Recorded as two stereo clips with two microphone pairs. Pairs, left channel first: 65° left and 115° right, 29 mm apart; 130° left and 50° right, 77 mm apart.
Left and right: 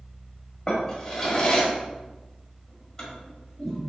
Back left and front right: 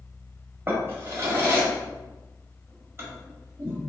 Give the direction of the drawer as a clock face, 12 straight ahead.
12 o'clock.